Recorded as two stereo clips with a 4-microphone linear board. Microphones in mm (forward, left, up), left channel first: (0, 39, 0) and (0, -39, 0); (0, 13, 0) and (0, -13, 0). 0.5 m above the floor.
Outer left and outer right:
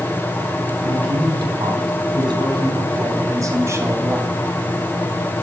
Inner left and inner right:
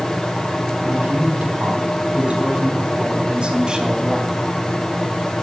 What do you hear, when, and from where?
0.8 s a man speaking: 80° right, 4 m; by 4.4 s 25° right (ahead or behind), 3 m